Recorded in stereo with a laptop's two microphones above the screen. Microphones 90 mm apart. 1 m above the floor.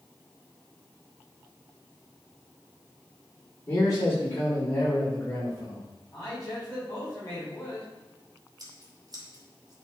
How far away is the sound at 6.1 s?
About 3 m.